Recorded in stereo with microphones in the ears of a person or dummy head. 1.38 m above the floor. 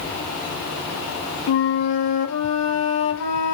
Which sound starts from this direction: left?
A flute, at 1.5 s.